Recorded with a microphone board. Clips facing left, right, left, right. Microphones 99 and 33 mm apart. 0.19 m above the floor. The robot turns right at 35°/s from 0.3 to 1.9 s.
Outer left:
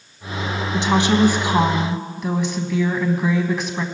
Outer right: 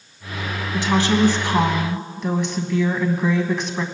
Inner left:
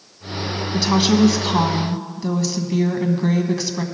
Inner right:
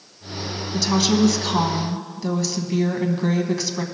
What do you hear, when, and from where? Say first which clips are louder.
0.7 s a woman speaking: outer left 1 dB, inner left 3 dB; 135° left, 1.1 m; by 3.9 s 175° left, 1.1 m